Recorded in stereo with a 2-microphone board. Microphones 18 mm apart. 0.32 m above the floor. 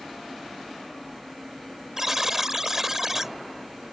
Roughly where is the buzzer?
Centre.